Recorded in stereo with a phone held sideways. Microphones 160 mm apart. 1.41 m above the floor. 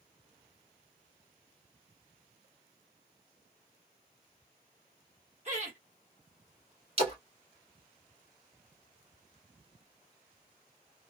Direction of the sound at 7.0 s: 40° right (ahead or behind).